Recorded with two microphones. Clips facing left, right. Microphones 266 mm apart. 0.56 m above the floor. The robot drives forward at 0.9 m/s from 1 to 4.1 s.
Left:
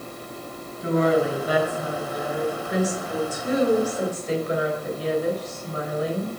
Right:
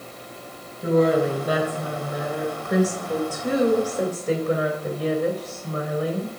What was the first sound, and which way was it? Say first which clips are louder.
A woman speaking: right 2 dB; 50° right (ahead or behind).